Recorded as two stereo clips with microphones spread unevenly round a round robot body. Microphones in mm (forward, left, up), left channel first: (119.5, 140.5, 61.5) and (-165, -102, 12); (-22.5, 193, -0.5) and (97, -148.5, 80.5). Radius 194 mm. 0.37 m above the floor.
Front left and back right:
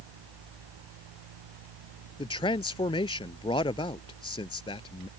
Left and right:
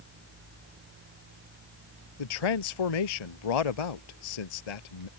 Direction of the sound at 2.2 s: 120° left.